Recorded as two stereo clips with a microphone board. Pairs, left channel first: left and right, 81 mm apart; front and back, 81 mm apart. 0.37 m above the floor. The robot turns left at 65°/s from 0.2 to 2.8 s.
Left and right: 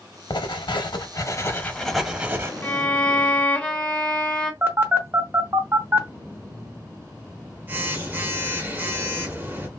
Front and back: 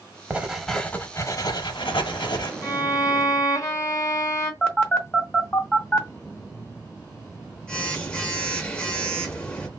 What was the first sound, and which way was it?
Writing, 110° left.